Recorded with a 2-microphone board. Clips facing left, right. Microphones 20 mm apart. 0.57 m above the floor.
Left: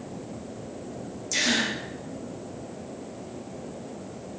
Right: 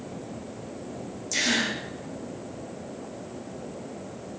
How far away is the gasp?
About 0.9 m.